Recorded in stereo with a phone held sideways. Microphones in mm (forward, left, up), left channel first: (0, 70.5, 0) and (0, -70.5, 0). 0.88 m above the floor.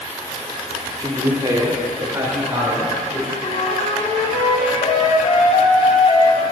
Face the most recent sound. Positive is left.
turn(degrees=50)  # may be behind; listen again after turning